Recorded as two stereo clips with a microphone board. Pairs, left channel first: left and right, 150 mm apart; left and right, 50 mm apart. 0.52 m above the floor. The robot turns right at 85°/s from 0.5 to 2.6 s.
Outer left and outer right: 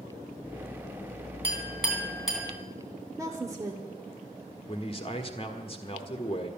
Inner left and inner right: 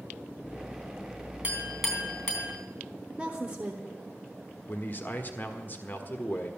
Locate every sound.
1.4 s a clink: 35° right (ahead or behind), 3 m; by 2.5 s 50° left (ahead or behind), 3 m
3.2 s a woman speaking: 20° right (ahead or behind), 1.3 m
4.7 s a man speaking: 40° left (ahead or behind), 1.4 m